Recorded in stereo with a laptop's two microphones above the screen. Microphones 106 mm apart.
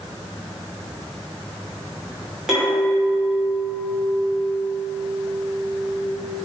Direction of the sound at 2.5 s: 5° right (ahead or behind).